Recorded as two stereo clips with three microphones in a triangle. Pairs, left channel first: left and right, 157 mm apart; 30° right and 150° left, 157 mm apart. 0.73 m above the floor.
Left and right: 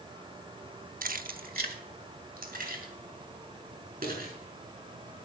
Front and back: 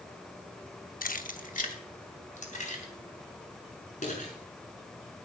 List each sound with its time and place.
1.0 s keys jangling: 60° right, 0.7 m; by 5.2 s 70° right, 7 m